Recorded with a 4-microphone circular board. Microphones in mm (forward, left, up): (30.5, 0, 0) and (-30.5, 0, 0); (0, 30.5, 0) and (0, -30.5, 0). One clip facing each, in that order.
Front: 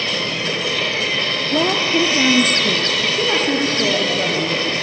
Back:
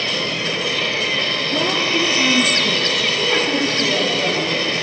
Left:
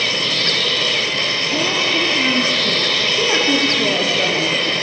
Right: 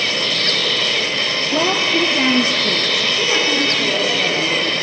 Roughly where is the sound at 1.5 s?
Ahead right.